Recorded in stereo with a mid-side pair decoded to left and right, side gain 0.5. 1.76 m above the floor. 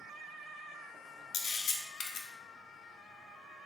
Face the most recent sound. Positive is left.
turn(degrees=65)